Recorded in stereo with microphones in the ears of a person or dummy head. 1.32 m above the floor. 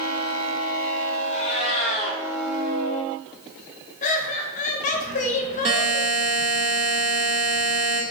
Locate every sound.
1.3 s a cat meowing: 30° left (ahead or behind), 1.2 m
4.0 s laughter: 40° left (ahead or behind), 0.6 m
5.7 s a buzzer: 30° right (ahead or behind), 0.9 m